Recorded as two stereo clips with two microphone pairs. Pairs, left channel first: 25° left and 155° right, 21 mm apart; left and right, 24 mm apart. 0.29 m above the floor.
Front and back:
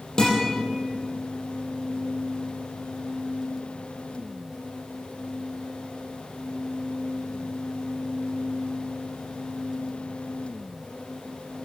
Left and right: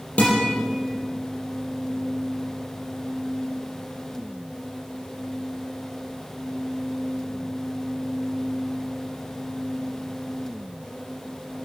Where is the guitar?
80° left, 6 m.